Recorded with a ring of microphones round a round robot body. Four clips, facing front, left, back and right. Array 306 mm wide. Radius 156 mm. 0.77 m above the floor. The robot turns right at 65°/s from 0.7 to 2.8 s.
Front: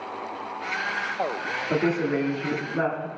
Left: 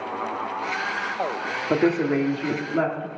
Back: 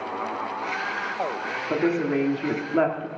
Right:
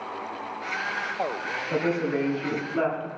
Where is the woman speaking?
95° left, 1.7 m; by 3.1 s 165° left, 1.7 m.